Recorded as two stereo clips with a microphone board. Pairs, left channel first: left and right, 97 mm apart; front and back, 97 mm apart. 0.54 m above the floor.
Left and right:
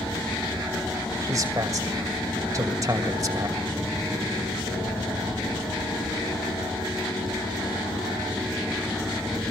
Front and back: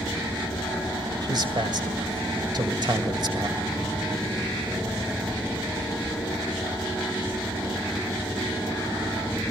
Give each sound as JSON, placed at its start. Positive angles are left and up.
{"t": 1.2, "sound": "a man speaking", "azimuth_deg": -145, "distance_m": 2.0}